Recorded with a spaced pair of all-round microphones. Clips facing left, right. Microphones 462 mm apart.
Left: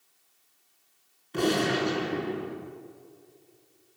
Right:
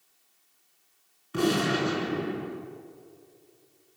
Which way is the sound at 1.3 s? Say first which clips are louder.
Even; 25° right (ahead or behind).